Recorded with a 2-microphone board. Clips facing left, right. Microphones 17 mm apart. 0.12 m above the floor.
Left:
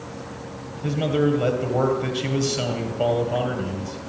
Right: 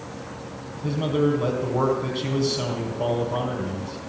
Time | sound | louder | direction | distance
0.8 | a man speaking | left 1 dB | 60° left (ahead or behind) | 3.5 m